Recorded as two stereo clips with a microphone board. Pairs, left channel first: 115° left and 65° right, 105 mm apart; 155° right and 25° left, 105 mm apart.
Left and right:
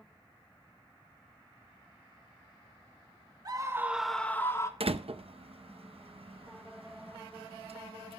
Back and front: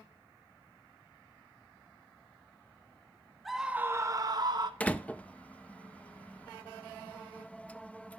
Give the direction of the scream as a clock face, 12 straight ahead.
2 o'clock.